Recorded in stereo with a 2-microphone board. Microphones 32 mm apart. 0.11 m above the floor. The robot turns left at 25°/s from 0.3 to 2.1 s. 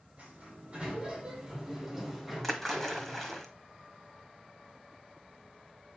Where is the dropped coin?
No dropped coin in this recording.